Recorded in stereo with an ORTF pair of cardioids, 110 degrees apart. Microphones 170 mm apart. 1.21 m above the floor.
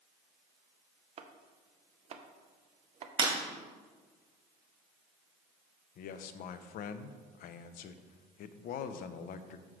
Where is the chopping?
40° right, 0.6 m.